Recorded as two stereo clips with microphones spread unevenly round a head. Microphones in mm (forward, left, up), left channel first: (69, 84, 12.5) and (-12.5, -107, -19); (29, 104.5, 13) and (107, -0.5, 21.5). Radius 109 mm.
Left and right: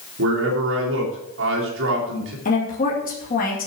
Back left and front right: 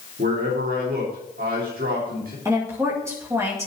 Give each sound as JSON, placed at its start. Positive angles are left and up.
{"t": 0.2, "sound": "a man speaking", "azimuth_deg": -90, "distance_m": 3.0}
{"t": 2.5, "sound": "a woman speaking", "azimuth_deg": 15, "distance_m": 2.0}